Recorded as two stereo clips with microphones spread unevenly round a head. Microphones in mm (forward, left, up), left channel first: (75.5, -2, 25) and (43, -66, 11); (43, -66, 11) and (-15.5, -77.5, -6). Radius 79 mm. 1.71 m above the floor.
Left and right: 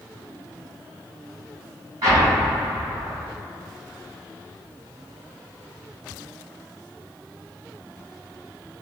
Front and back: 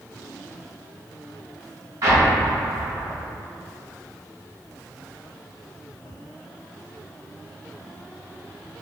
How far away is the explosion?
About 1.7 m.